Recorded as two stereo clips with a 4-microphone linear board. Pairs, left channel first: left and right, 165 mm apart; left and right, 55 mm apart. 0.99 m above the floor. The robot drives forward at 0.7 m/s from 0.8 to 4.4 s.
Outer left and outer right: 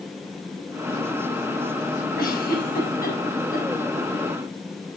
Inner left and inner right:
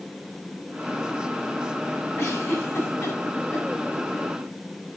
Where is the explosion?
No explosion in this recording.